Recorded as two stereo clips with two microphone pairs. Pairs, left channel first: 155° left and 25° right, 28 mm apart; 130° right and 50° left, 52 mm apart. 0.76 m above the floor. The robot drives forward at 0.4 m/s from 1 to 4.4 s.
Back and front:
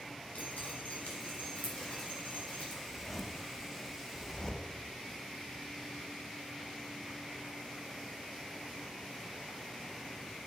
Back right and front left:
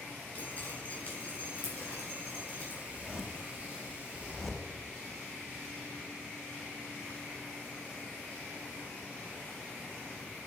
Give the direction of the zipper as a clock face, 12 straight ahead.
9 o'clock.